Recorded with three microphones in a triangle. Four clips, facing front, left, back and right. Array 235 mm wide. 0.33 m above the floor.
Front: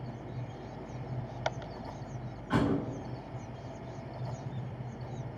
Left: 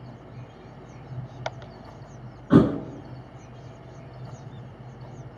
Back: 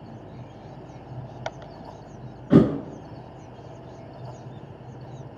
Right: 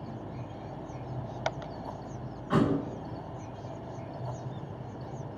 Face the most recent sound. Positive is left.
turn(degrees=145)